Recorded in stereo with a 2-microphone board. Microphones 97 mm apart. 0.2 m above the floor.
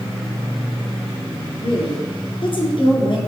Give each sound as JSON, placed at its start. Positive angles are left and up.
{"t": 1.6, "sound": "a woman speaking", "side_deg": 60, "distance_m": 3.0}